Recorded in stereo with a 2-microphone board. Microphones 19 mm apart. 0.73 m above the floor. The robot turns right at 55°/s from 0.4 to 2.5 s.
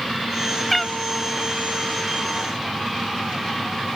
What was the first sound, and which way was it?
A cat meowing, 15° left (ahead or behind).